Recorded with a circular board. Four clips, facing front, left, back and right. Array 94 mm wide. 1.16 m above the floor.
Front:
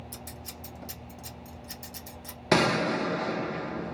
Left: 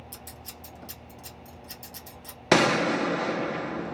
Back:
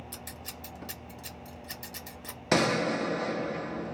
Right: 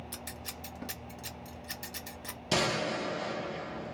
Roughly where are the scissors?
Behind right.